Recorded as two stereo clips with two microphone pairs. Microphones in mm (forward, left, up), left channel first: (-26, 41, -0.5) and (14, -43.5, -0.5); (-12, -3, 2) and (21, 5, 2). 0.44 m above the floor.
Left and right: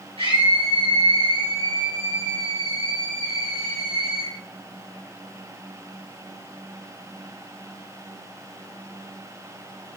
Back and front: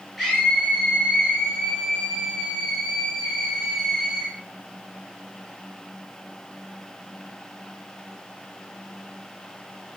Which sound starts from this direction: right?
A scream, at 0.2 s.